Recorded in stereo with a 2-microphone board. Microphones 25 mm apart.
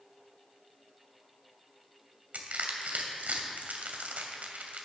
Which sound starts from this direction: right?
Crushing, at 2.3 s.